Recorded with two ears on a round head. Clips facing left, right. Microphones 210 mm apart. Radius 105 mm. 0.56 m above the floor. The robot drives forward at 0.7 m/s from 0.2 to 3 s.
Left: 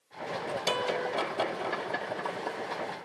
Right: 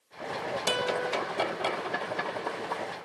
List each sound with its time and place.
0.7 s a guitar: 10° right (ahead or behind); by 1.1 s 15° right (ahead or behind)